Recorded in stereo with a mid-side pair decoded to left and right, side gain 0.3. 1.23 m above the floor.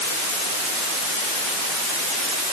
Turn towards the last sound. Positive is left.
No sound to turn to.